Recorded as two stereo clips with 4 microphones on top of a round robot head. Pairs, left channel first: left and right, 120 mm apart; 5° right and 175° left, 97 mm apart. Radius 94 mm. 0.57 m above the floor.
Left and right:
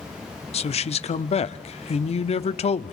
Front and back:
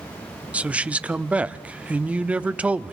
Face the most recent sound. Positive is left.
turn(degrees=100)